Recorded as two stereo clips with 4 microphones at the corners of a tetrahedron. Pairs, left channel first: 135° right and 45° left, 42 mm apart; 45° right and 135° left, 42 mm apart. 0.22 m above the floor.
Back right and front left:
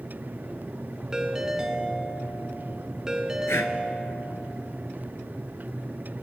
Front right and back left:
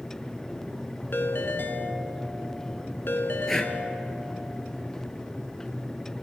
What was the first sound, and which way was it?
A ringtone, 25° right.